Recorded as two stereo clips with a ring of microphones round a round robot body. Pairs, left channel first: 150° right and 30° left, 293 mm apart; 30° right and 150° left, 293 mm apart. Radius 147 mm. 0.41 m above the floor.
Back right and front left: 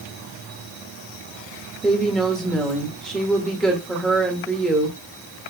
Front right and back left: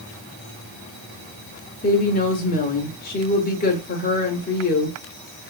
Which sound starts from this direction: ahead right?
A woman speaking, at 1.8 s.